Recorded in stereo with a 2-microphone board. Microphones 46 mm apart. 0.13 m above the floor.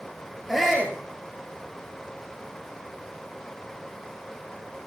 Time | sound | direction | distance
0.5 | a shout | centre (ahead or behind) | 2.5 m